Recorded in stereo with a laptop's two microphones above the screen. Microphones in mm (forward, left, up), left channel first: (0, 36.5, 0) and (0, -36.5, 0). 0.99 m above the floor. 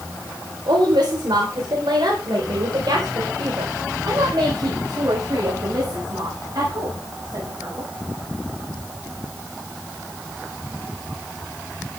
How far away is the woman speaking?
About 4 m.